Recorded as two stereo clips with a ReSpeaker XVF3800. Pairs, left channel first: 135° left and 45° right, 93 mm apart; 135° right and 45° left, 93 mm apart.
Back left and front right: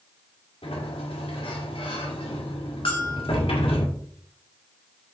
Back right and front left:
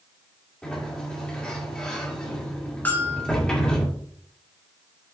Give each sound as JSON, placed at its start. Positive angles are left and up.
{"t": 0.6, "sound": "a sliding door", "azimuth_deg": 145, "distance_m": 1.9}
{"t": 2.9, "sound": "a bell", "azimuth_deg": 155, "distance_m": 2.0}